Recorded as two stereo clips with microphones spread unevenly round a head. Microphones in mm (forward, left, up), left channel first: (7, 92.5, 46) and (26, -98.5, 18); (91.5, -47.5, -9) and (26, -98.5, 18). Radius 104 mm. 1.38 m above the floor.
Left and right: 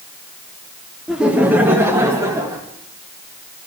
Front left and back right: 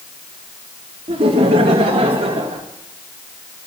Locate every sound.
1.1 s laughter: 175° right, 0.9 m; by 2.6 s 160° right, 1.7 m